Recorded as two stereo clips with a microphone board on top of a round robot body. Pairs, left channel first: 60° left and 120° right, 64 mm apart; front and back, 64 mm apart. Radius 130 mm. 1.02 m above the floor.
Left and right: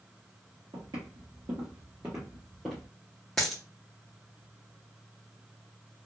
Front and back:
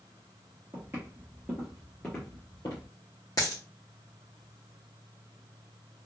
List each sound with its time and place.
0.7 s footsteps: 125° right, 1.7 m; by 2.9 s 15° right, 1.2 m
3.4 s a dropped coin: 20° right, 0.5 m